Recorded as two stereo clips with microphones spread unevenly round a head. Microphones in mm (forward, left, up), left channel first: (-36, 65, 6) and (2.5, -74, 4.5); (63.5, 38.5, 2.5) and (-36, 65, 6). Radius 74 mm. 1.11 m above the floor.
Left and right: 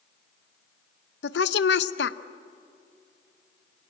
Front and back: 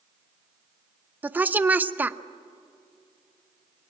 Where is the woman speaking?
90° left, 0.8 m.